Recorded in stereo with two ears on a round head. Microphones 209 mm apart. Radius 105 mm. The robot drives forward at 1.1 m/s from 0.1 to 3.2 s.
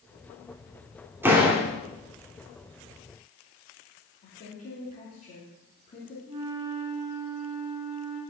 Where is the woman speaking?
40° left (ahead or behind), 3 m.